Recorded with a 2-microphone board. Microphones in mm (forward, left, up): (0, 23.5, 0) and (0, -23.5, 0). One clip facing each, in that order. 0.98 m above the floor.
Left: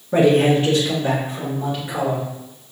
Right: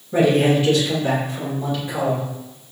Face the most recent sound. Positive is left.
turn(degrees=20)  # may be behind; listen again after turning